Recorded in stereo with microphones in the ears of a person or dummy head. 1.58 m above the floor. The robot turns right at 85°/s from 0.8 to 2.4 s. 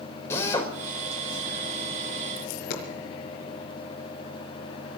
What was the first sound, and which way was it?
A drill, 15° left (ahead or behind).